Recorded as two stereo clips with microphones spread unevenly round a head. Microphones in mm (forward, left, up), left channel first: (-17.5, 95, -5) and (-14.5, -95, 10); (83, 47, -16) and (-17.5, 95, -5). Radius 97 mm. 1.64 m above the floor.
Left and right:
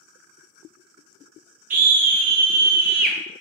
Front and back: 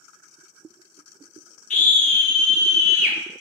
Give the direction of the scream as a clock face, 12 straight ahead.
1 o'clock.